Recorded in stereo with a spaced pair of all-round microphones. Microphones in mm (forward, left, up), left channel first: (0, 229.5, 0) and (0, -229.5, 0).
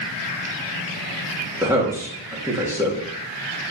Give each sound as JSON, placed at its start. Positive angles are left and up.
{"t": 1.6, "sound": "a man speaking", "side_deg": -5, "distance_m": 2.5}